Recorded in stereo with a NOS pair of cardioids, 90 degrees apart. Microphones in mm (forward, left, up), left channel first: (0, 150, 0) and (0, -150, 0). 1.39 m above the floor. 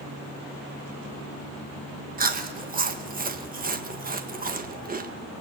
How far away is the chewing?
About 1.5 m.